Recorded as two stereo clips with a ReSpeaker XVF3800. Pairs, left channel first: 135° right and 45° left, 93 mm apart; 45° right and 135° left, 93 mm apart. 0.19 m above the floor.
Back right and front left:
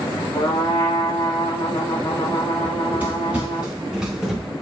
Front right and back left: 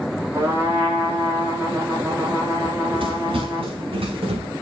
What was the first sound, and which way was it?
A trumpet, 160° right.